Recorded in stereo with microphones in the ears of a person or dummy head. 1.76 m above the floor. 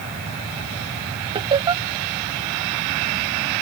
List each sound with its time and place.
1.4 s laughter: 25° right (ahead or behind)